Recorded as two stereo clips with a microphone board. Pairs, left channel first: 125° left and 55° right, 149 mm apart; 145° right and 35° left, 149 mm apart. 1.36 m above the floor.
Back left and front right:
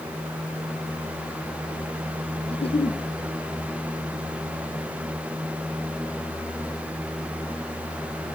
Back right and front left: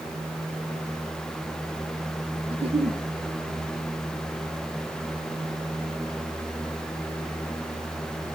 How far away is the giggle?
About 1.1 m.